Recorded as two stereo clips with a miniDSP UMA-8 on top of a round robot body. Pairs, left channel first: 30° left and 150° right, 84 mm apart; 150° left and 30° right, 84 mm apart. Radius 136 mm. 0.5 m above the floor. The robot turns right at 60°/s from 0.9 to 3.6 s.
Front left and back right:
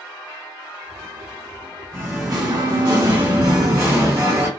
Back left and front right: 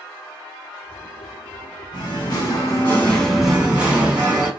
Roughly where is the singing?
Behind left.